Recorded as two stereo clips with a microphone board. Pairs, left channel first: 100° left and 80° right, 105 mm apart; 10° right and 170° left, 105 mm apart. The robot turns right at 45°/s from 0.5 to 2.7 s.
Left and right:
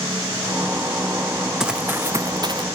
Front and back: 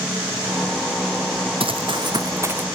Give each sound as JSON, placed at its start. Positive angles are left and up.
{"t": 1.6, "sound": "running footsteps", "azimuth_deg": -165, "distance_m": 0.8}